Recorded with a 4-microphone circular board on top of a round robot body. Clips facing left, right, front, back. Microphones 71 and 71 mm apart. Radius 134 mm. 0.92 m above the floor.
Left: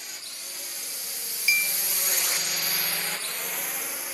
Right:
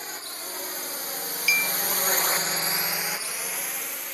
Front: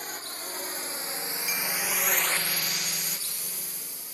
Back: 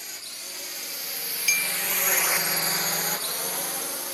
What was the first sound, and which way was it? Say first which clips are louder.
A drone: right 7 dB, front 5 dB; 45° right.